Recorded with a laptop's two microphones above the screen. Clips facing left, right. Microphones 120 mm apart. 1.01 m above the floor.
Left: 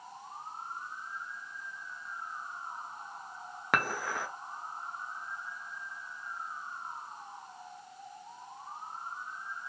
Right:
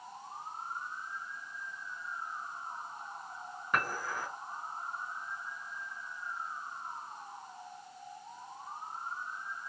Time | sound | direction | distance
3.7 | dishes clattering | 85° left | 0.6 m